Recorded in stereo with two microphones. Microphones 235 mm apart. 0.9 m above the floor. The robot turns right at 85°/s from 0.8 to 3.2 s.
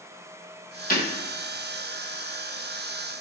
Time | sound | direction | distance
0.9 | breaking glass | 35° left (ahead or behind) | 1.7 m